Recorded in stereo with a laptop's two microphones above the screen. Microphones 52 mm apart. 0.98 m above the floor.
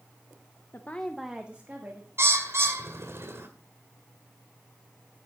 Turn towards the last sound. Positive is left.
turn(degrees=-55)  # may be behind; listen again after turning